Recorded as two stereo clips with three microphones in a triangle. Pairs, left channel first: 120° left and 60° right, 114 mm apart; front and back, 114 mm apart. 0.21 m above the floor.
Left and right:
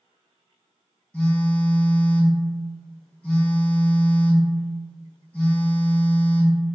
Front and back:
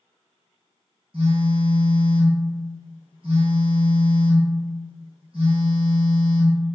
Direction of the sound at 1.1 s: 165° right.